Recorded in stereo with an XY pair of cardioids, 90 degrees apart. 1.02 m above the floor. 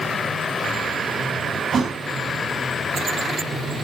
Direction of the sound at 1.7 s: 45° right.